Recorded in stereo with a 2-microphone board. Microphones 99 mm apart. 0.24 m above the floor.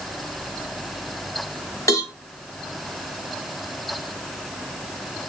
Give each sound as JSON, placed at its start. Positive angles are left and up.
{"t": 1.9, "sound": "a cowbell", "side_deg": 30, "distance_m": 1.9}